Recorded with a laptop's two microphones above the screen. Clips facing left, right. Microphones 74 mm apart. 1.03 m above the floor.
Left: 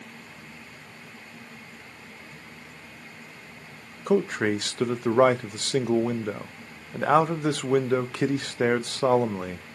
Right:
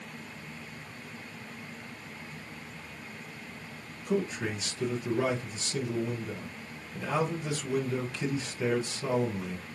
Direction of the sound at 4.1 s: 65° left (ahead or behind).